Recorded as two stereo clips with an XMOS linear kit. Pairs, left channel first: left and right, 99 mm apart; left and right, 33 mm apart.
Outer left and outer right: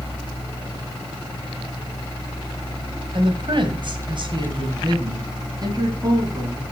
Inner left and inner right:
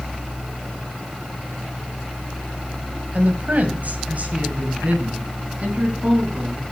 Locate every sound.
3.1 s a woman speaking: 55° right (ahead or behind), 1.9 m; by 6.6 s 40° right (ahead or behind), 3.5 m